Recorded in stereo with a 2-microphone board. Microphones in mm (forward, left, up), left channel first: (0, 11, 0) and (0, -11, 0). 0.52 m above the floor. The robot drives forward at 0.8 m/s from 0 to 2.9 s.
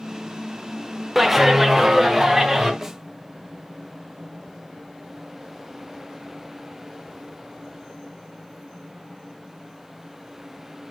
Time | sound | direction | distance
1.1 | a clap | 5° right (ahead or behind) | 1.1 m
2.8 | a snare drum | 10° right (ahead or behind) | 0.8 m